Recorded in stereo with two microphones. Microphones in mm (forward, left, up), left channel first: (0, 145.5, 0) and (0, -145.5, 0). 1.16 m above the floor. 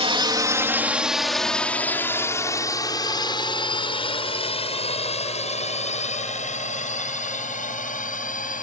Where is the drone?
20° right (ahead or behind); by 8.6 s 25° left (ahead or behind).